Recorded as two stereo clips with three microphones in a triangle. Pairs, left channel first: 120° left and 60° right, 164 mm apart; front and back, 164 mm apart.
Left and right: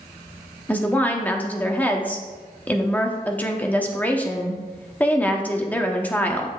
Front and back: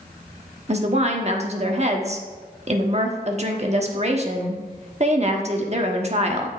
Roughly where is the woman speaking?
Behind.